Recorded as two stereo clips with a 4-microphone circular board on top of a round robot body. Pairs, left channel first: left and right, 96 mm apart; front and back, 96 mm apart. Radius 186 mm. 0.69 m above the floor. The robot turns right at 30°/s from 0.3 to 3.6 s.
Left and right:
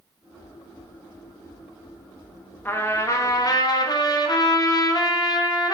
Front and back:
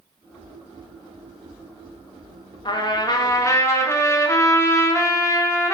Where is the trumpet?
25° left, 1.6 m; by 5.7 s 55° left, 1.6 m.